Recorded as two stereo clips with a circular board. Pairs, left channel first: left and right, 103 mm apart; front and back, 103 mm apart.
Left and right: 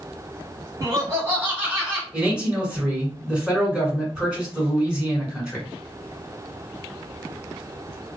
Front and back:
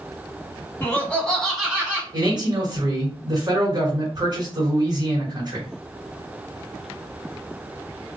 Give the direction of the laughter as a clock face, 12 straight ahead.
2 o'clock.